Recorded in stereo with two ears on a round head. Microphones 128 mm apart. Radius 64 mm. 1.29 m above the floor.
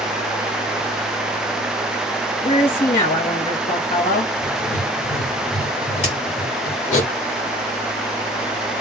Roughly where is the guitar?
I don't hear a guitar.